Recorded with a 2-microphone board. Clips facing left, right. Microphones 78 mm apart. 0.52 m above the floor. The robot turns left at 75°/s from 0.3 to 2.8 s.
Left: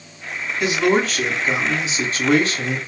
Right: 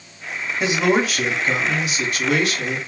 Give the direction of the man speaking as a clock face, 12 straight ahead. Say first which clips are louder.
Left 1 dB; 4 o'clock.